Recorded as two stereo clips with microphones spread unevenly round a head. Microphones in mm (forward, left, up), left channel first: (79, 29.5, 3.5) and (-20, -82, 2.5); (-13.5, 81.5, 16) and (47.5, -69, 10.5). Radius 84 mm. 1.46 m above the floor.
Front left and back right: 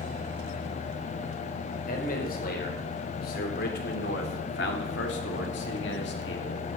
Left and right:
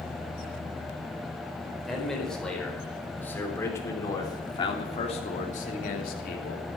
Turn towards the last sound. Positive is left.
turn(degrees=90)